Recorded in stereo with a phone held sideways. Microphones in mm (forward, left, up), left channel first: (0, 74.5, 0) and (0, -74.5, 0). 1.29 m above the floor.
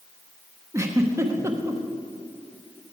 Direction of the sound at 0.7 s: 20° right (ahead or behind).